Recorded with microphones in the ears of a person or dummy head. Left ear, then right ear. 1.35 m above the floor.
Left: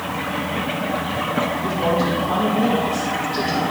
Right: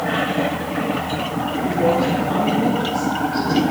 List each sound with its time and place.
1.6 s a woman speaking: 10° left (ahead or behind), 4.5 m